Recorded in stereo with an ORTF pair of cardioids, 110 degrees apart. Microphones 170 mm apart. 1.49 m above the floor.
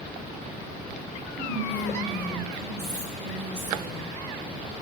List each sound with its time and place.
1.4 s whispering: 40° right, 2 m